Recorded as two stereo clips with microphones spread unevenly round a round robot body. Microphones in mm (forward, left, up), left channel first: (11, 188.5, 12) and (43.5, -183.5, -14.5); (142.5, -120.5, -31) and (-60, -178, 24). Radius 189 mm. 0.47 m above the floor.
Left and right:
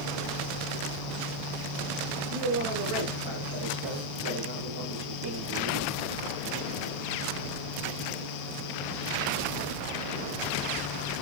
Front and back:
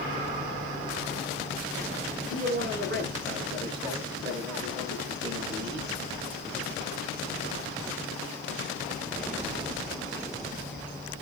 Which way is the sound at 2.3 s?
130° right.